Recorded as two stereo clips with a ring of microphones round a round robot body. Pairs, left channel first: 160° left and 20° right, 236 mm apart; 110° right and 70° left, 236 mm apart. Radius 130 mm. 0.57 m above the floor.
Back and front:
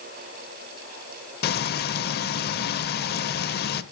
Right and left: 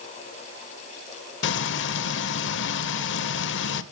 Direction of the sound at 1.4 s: 155° right.